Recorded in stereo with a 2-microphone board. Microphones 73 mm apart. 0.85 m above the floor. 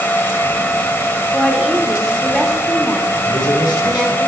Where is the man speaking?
75° left (ahead or behind), 3.5 m.